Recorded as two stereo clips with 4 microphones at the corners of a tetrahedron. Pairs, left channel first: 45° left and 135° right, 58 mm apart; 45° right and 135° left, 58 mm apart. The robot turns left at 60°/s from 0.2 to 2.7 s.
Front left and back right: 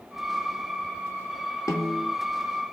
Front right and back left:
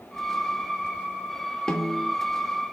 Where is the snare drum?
30° left, 2 m; by 2.1 s straight ahead, 2 m.